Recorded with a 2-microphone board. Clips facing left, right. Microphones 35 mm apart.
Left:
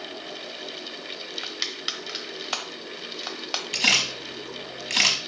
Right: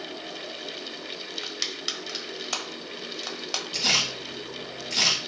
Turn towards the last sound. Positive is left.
turn(degrees=75)  # may be behind; listen again after turning